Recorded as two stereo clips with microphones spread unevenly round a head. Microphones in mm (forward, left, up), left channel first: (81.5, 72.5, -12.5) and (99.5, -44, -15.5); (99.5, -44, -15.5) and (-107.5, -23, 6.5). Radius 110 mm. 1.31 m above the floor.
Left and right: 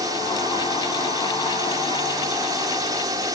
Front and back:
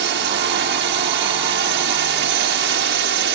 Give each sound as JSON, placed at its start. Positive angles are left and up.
{"t": 0.0, "sound": "a drone", "azimuth_deg": -155}